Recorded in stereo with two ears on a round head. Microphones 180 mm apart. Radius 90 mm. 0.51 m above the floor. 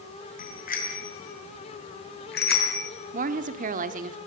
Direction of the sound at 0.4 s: 40° left (ahead or behind).